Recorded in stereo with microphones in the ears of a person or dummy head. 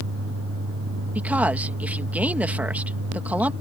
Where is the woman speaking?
10° right (ahead or behind).